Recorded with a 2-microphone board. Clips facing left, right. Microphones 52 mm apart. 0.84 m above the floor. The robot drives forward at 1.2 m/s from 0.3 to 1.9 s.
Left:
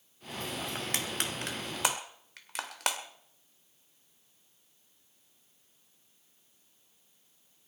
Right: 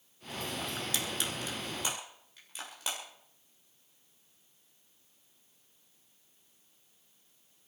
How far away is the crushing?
About 2.5 m.